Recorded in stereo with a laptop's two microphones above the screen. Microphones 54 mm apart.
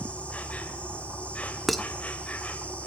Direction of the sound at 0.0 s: 25° left (ahead or behind).